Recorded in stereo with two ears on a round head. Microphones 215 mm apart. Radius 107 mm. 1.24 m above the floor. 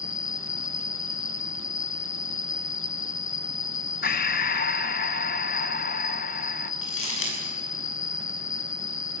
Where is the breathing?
40° left (ahead or behind), 0.8 m.